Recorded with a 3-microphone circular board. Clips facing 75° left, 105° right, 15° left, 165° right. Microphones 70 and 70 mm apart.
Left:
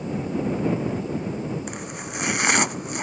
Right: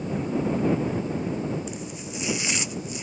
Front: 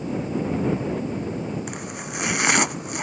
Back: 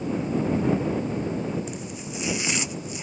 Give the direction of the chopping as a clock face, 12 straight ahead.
11 o'clock.